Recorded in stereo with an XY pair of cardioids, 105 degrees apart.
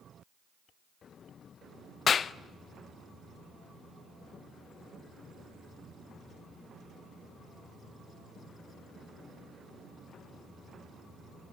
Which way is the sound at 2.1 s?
45° left.